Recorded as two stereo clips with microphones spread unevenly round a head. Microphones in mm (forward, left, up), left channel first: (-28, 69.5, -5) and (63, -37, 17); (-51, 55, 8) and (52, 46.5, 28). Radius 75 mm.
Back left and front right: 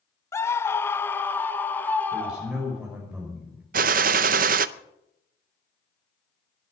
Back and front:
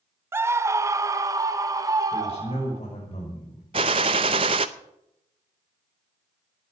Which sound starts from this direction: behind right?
A man speaking, at 2.1 s.